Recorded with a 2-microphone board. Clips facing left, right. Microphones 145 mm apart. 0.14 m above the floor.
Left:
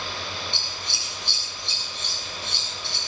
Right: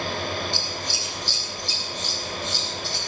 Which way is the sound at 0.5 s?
60° left (ahead or behind).